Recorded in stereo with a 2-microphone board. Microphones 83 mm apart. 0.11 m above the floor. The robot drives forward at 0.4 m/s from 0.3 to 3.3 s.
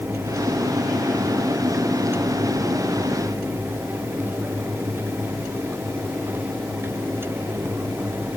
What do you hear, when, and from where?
Only background noise.